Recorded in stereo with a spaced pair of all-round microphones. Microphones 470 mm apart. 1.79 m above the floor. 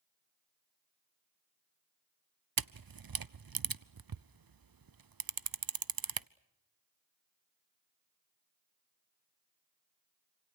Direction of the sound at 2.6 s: 50° right (ahead or behind).